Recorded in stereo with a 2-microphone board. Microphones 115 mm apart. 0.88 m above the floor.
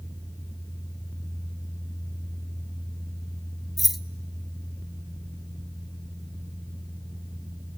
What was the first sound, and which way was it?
Keys jangling, centre (ahead or behind).